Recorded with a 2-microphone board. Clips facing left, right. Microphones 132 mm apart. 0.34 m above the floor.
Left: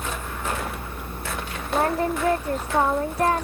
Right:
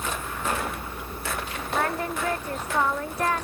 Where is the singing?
30° left (ahead or behind).